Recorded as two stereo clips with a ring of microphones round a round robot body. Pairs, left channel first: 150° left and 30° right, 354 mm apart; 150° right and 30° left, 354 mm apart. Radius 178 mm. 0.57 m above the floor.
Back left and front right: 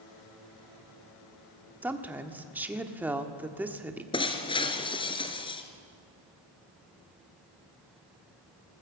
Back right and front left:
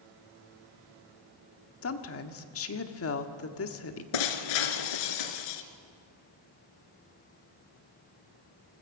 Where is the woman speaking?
115° right, 1.5 m.